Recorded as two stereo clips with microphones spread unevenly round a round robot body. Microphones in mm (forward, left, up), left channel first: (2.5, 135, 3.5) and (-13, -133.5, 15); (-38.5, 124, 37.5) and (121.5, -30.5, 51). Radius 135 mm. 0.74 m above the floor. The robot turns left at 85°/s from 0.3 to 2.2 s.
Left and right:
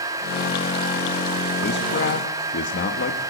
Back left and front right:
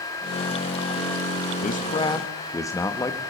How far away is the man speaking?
About 1.2 m.